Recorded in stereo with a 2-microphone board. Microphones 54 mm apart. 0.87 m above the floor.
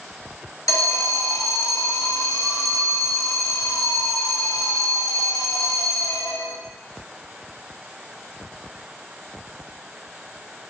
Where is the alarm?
80° left, 1.2 m.